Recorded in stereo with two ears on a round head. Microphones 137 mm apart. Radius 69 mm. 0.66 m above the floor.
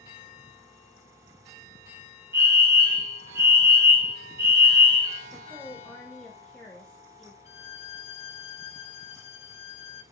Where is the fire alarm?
20° right (ahead or behind), 2 m.